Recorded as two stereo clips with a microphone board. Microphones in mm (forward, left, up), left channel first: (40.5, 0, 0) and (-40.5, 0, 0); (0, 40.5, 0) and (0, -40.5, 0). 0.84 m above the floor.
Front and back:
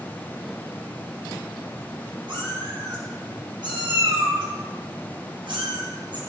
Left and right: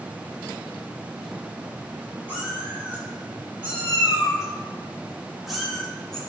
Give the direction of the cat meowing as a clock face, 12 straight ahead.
5 o'clock.